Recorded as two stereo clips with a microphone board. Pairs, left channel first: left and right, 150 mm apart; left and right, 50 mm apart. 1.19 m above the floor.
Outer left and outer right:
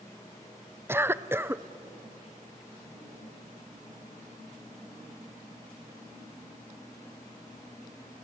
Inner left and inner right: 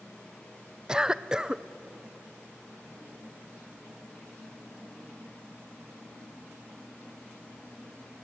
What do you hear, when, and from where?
0.9 s a cough: 15° right (ahead or behind), 0.6 m